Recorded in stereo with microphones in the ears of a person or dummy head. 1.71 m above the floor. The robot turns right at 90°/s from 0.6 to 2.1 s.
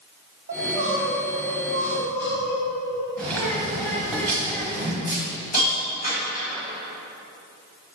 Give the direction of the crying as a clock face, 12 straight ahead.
2 o'clock.